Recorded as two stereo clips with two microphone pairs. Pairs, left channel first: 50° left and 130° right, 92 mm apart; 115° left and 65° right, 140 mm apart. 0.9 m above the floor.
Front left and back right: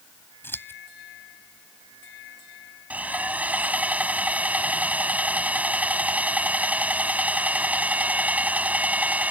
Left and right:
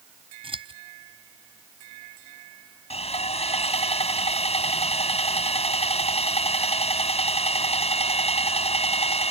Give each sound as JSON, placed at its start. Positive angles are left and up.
{"t": 0.4, "sound": "scissors", "azimuth_deg": -15}
{"t": 2.9, "sound": "sawing", "azimuth_deg": 155}